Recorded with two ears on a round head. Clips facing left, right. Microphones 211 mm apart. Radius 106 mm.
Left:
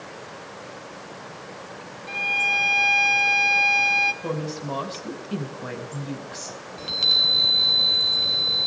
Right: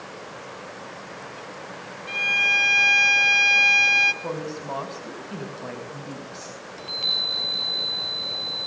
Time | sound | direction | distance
2.1 | a violin | 15° right (ahead or behind) | 1.1 m
4.2 | a woman speaking | 20° left (ahead or behind) | 4.5 m
6.8 | a chime | 25° left (ahead or behind) | 4.5 m